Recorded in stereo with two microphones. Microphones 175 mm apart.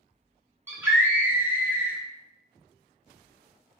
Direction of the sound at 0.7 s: 15° right (ahead or behind).